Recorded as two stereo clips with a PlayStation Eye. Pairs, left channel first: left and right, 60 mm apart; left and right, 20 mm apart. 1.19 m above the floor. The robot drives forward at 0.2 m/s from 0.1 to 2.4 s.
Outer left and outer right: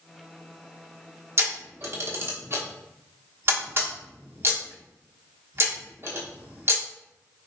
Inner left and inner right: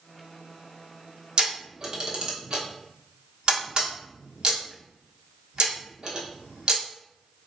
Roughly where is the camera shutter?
Right.